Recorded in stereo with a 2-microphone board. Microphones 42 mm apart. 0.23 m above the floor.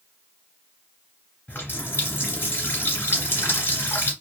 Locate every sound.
1.5 s a running tap: 60° left (ahead or behind), 1.6 m